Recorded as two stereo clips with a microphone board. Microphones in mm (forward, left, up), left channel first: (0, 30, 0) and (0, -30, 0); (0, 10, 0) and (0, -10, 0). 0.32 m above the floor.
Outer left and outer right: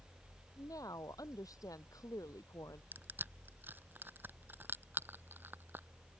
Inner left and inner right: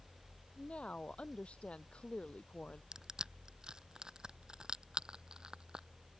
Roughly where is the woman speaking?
Left.